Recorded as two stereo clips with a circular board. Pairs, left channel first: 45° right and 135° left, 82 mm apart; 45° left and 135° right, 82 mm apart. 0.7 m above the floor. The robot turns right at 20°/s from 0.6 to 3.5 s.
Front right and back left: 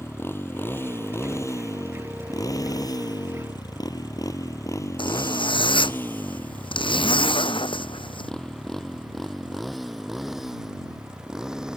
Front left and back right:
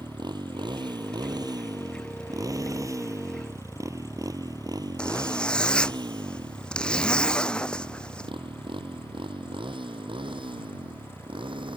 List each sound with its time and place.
0.0 s a motorcycle: 105° right; by 11.8 s 140° right
5.0 s a zipper: 35° right